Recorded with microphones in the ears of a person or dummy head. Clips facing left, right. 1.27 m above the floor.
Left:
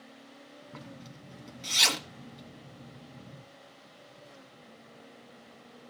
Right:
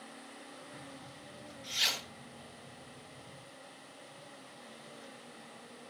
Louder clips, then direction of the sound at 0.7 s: Left 3 dB; 85° left.